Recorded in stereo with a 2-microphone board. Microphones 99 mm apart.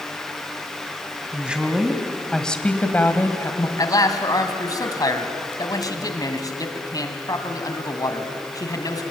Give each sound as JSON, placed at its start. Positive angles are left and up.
{"t": 1.3, "sound": "a woman speaking", "side_deg": -10, "distance_m": 2.0}
{"t": 3.8, "sound": "a man speaking", "side_deg": 40, "distance_m": 2.0}